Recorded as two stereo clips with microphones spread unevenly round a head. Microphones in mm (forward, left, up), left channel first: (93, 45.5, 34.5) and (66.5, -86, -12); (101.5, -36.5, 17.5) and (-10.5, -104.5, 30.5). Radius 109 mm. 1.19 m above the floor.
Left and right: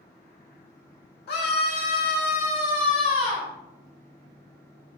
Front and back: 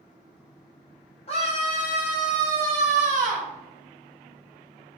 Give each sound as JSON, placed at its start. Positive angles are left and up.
{"t": 1.3, "sound": "a scream", "azimuth_deg": 85, "distance_m": 1.3}